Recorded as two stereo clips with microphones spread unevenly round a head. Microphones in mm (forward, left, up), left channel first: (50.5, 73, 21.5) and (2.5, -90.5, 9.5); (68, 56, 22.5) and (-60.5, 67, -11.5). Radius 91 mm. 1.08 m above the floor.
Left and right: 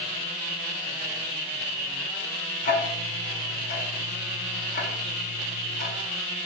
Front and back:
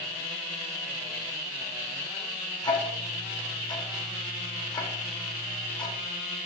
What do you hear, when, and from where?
2.6 s ticking: 40° left, 0.8 m